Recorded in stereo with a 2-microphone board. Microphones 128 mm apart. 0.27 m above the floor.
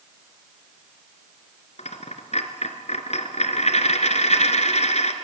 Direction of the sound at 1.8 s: 65° left (ahead or behind).